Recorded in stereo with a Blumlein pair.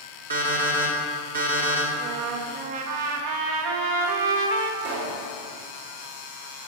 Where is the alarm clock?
70° right, 1.5 m.